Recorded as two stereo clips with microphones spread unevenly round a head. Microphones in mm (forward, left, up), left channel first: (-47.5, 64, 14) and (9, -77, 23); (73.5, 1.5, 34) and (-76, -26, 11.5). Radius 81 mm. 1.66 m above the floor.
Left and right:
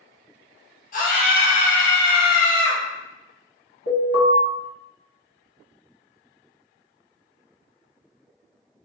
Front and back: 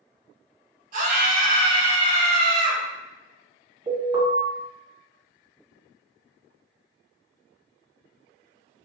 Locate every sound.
0.9 s a scream: 150° left, 1.1 m
3.9 s an alarm: 130° left, 1.5 m